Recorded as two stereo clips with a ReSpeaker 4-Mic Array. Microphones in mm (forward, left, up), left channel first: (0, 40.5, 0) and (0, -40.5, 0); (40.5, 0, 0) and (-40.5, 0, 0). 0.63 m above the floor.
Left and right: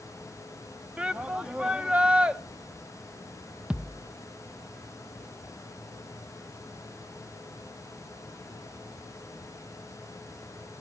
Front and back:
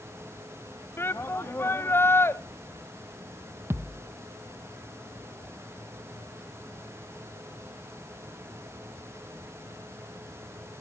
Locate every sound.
1.0 s a shout: 25° right, 0.7 m
3.7 s a thud: 155° right, 0.7 m